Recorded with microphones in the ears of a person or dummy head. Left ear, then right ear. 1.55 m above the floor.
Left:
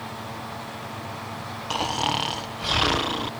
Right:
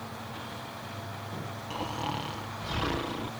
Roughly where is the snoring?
Left.